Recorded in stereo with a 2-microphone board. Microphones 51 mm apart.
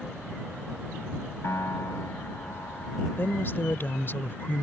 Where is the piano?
70° left (ahead or behind).